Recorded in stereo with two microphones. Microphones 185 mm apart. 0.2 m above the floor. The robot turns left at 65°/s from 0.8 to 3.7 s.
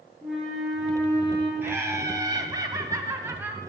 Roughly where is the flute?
Behind.